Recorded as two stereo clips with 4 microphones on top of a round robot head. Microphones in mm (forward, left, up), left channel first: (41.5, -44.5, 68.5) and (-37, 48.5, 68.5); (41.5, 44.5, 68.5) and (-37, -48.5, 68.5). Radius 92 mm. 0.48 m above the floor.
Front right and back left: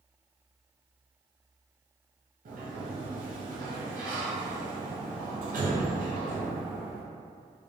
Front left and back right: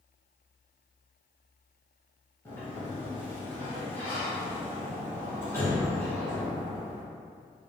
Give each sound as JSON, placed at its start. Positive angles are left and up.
{"t": 2.5, "sound": "a sliding door", "azimuth_deg": 120, "distance_m": 0.6}